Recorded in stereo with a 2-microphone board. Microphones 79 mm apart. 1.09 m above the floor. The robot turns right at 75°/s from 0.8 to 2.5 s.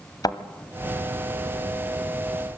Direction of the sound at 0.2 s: 55° left (ahead or behind).